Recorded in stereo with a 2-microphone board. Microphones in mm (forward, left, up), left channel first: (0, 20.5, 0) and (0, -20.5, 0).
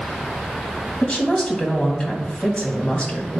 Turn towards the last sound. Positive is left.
turn(degrees=30)  # may be behind; listen again after turning